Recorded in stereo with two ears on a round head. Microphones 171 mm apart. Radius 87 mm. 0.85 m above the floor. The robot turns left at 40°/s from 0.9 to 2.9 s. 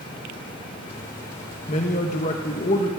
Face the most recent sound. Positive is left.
turn(degrees=60)